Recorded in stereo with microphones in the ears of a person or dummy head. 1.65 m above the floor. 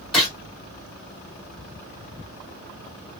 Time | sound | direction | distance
0.1 | a gunshot | 5° left (ahead or behind) | 1.8 m